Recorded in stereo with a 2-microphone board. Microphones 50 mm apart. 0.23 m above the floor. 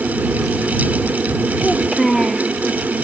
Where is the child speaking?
5° left (ahead or behind).